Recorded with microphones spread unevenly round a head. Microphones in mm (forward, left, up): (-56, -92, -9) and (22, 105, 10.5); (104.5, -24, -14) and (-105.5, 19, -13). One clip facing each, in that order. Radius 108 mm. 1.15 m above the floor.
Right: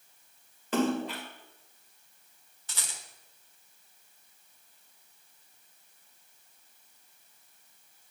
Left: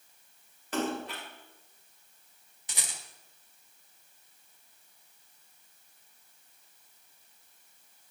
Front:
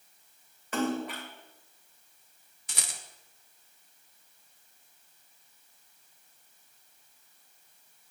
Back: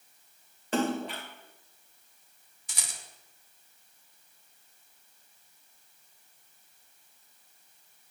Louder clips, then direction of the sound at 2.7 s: Left 2 dB, front 3 dB; straight ahead.